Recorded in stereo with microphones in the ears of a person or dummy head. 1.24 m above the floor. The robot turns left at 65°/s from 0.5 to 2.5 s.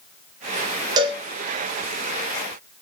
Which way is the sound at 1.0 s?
25° right (ahead or behind).